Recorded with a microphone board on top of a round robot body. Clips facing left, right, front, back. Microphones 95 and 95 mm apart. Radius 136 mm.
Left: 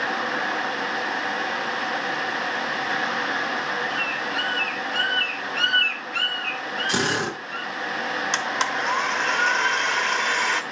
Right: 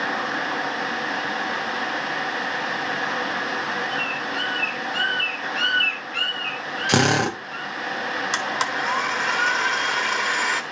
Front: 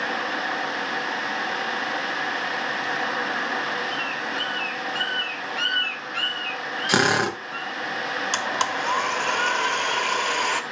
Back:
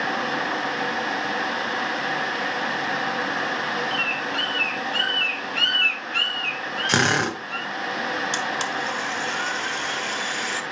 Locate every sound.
3.9 s a bird: straight behind, 2 m
6.9 s a drill: 80° right, 1.7 m
8.3 s a blender: 5° right, 1.1 m